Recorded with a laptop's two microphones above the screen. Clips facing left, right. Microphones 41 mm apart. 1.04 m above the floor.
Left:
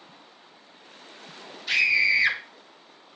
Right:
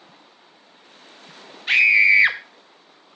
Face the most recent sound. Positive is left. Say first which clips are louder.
# right 7 dB
turn(degrees=-45)  # may be behind; listen again after turning